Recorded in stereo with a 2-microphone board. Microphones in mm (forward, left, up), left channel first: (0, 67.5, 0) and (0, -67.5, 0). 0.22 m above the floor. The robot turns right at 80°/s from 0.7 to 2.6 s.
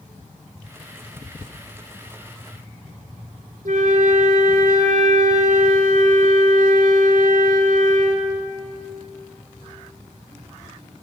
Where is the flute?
80° right, 0.7 m.